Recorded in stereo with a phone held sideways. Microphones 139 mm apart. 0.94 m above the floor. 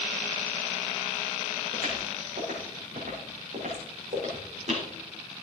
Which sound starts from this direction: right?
Footsteps, at 1.7 s.